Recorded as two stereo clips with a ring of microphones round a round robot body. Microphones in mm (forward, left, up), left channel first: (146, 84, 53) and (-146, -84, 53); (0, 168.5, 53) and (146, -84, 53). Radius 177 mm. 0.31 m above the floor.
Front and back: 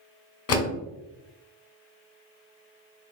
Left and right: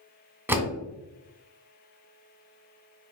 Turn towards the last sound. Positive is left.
turn(degrees=20)